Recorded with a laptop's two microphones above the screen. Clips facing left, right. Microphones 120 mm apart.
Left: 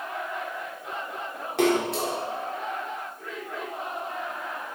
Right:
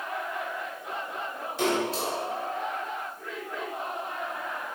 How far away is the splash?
About 3 m.